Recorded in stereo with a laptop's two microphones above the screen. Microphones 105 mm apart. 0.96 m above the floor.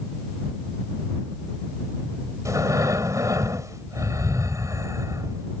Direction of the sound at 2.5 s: 30° right (ahead or behind).